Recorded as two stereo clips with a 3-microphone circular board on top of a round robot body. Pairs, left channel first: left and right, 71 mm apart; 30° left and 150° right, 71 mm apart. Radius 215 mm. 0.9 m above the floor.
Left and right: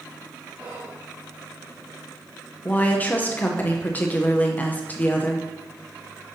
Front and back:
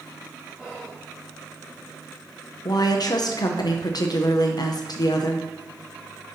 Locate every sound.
0.6 s whispering: 30° right, 3 m
2.6 s a woman speaking: 25° left, 0.8 m